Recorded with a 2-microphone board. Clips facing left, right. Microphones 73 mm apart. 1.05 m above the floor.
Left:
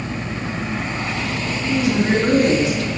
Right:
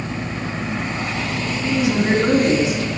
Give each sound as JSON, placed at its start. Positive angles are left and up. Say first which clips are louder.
{"t": 1.6, "sound": "a woman speaking", "louder": "even", "side_deg": -15, "distance_m": 3.0}